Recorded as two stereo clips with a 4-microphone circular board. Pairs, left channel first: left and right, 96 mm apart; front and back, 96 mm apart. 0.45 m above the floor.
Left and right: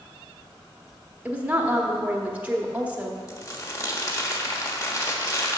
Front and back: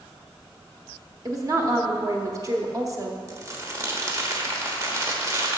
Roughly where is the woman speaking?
Behind right.